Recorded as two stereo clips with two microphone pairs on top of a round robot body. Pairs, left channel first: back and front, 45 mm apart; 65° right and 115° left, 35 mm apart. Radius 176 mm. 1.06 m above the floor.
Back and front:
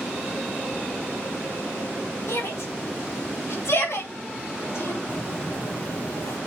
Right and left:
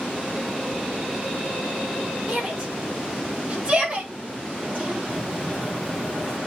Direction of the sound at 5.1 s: 140° right.